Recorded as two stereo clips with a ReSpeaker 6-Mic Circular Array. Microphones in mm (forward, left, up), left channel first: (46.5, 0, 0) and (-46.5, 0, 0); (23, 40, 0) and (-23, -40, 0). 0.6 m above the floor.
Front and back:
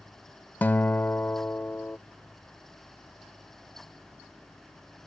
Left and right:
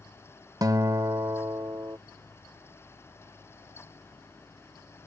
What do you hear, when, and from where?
0.6 s a guitar: 70° right